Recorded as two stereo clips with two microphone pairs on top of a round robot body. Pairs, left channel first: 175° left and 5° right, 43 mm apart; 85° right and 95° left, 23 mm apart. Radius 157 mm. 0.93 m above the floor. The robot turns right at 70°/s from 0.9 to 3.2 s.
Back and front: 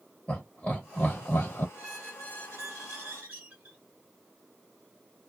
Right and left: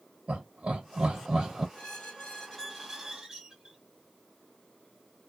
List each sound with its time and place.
0.3 s laughter: 110° left, 1.1 m; by 1.6 s 165° left, 1.1 m
1.8 s a squeak: 65° right, 0.5 m; by 3.8 s 40° left, 0.5 m